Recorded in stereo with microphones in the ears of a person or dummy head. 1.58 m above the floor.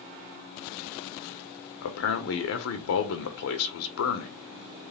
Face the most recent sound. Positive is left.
turn(degrees=75)  # may be behind; listen again after turning